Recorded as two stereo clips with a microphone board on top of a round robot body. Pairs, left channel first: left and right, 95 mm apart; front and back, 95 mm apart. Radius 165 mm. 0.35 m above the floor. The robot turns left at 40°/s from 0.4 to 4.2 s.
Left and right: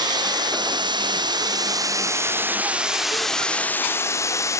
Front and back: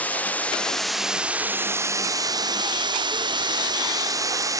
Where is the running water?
70° right, 1.2 m; by 4.6 s 140° left, 1.2 m.